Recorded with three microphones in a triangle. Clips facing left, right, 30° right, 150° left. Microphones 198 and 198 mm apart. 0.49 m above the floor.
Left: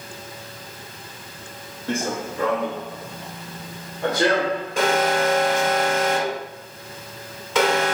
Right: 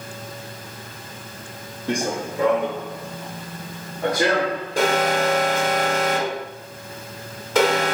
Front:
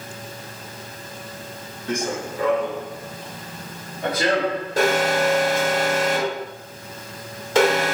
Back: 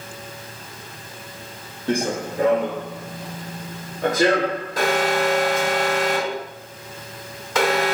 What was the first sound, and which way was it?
Running footsteps, 160° right.